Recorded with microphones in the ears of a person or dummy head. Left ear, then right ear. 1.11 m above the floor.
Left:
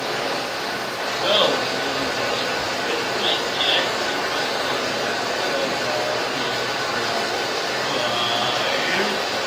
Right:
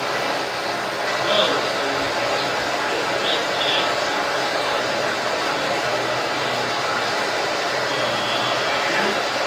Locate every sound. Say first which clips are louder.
0.0 s running water: right 2 dB; 20° left (ahead or behind), 1.6 m
1.2 s laughter: left 1 dB; 65° left (ahead or behind), 0.8 m